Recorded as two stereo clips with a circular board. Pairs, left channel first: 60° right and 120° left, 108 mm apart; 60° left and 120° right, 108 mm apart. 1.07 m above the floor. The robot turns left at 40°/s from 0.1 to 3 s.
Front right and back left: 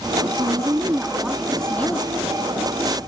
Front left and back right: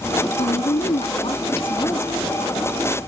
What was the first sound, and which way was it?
A woman speaking, 75° left.